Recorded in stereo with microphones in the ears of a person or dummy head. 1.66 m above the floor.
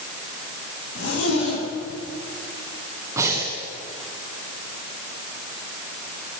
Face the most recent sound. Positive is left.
turn(degrees=-15)  # may be behind; listen again after turning